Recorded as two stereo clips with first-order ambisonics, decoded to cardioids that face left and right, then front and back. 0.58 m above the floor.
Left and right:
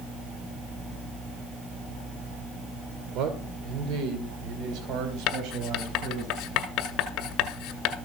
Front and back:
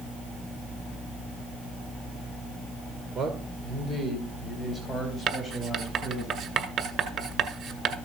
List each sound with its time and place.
3.1 s a man speaking: 120° right, 2 m; by 6.3 s 95° right, 4 m
5.3 s writing: 130° left, 1.8 m